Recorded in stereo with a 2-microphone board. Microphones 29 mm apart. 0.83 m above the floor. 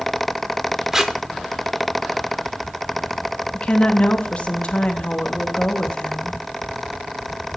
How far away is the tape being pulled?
About 0.7 m.